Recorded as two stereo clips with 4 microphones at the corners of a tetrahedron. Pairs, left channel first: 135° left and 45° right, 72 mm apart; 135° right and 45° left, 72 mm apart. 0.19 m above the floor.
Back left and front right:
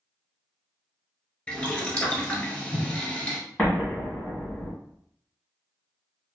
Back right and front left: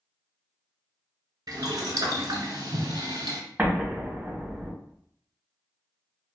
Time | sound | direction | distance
1.5 | boiling | 65° left | 0.6 m
3.6 | an explosion | 85° left | 1.4 m